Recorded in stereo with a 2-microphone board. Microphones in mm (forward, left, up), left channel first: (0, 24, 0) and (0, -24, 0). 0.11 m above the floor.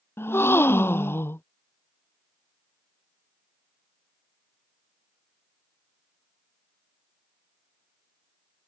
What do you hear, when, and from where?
0.2 s a gasp: 60° left (ahead or behind)